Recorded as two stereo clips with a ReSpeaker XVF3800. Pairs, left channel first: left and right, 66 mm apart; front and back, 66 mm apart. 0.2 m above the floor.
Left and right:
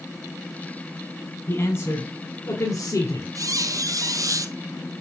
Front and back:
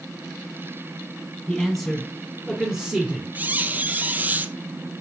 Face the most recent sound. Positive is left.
turn(degrees=-115)